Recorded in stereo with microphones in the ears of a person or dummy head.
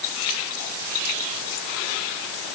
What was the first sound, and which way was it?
Only background noise.